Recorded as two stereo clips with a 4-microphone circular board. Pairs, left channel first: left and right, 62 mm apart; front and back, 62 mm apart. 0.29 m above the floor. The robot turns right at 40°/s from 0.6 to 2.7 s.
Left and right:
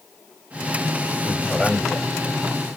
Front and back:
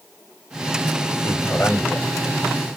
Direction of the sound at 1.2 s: 15° right.